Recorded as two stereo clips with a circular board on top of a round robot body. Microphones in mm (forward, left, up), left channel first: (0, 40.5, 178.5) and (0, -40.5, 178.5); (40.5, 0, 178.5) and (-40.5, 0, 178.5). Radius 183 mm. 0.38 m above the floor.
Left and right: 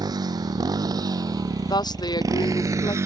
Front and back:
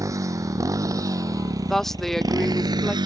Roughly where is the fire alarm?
No fire alarm in this recording.